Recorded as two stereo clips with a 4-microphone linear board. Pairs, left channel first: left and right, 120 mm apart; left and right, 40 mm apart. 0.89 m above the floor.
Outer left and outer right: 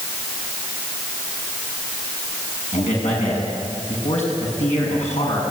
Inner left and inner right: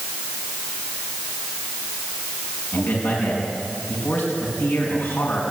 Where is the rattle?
I don't hear a rattle.